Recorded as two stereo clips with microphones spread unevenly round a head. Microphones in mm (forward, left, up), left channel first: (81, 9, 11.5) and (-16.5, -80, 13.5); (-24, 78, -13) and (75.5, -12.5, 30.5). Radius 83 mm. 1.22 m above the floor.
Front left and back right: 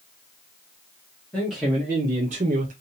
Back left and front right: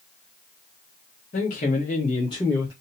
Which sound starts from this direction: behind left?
A man speaking, at 1.3 s.